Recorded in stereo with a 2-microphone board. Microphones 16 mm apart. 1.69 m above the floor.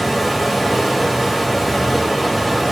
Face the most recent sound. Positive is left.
turn(degrees=-15)  # may be behind; listen again after turning